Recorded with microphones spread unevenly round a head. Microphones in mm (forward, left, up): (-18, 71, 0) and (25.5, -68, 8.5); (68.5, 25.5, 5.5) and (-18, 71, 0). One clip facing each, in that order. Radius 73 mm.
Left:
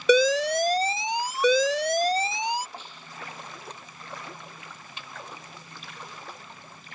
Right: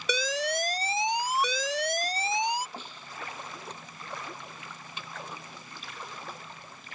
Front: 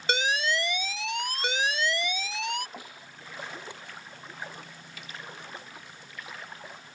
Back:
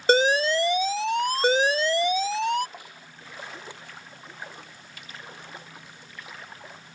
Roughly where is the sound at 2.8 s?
Right.